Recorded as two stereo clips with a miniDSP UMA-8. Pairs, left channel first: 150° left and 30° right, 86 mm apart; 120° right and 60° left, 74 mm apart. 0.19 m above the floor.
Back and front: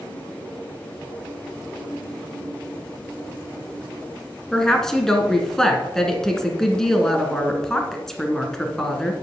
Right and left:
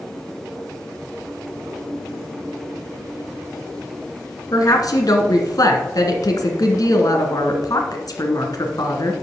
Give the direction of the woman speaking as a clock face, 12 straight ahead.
4 o'clock.